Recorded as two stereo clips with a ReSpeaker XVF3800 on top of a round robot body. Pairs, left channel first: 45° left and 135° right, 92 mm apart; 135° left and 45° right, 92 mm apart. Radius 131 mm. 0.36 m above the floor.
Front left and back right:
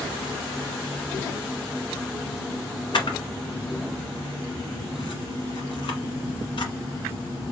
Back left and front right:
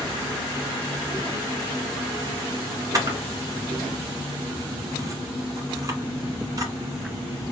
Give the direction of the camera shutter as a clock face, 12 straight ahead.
12 o'clock.